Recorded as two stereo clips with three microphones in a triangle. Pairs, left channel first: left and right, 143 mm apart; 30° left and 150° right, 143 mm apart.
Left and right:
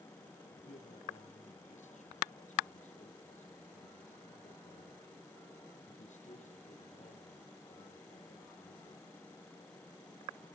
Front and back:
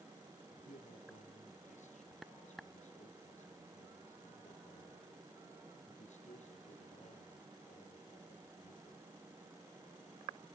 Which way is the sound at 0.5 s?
60° left.